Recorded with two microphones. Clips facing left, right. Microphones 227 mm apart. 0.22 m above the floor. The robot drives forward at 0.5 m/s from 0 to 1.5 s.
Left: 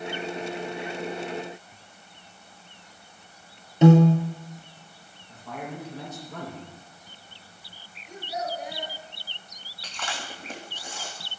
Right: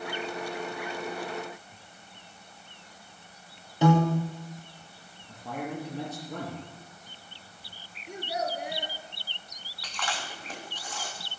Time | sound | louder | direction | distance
3.8 | a piano | left 7 dB | 25° left (ahead or behind) | 1.6 m
5.3 | a man speaking | right 2 dB | 65° right (ahead or behind) | 5.5 m
8.1 | a child speaking | even | 75° right (ahead or behind) | 2 m
9.8 | chewing | even | 25° left (ahead or behind) | 2.5 m